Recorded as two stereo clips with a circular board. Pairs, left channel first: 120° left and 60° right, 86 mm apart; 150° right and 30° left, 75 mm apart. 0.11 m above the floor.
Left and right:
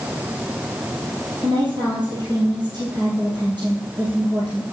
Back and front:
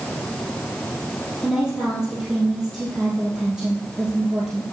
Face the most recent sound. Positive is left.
turn(degrees=-50)